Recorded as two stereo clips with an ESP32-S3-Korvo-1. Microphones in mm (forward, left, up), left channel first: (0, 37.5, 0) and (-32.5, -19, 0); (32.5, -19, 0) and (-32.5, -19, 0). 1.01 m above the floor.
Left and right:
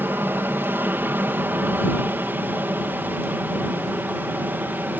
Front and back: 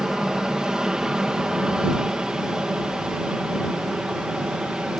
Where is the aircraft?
110° right; by 5.0 s 125° right.